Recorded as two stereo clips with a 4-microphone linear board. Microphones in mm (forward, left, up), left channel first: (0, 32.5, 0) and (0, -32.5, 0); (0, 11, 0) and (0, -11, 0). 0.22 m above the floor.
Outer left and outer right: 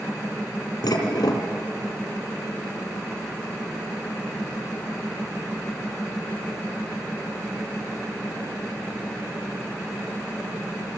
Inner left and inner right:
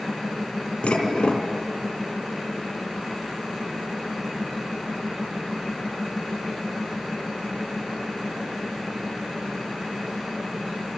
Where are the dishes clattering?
75° left (ahead or behind), 3 m.